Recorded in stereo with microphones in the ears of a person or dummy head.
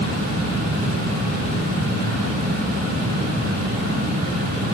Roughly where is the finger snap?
No finger snap in this recording.